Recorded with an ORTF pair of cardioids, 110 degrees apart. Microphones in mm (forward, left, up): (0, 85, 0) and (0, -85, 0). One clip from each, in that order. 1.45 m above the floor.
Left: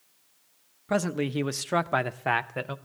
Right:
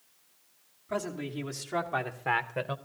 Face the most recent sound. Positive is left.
turn(degrees=0)